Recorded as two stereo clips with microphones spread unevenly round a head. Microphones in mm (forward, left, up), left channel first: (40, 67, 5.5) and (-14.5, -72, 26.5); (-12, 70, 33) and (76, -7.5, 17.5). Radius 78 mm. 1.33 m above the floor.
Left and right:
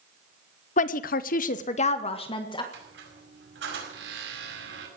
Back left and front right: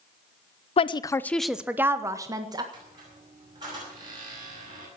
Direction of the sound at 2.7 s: 105° right.